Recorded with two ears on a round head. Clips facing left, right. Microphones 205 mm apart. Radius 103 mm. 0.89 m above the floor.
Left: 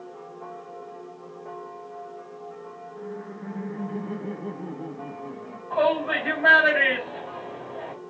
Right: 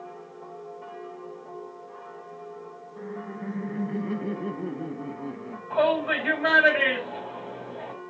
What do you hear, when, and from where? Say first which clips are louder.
3.0 s laughter: right 1 dB; 30° right (ahead or behind), 1.0 m
5.7 s a shout: even; 35° right (ahead or behind), 5.5 m